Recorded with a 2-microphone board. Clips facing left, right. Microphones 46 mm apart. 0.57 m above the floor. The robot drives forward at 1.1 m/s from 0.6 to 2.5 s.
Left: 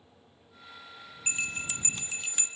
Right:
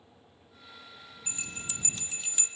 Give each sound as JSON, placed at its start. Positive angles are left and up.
{"t": 1.3, "sound": "a bell", "side_deg": 60, "distance_m": 0.6}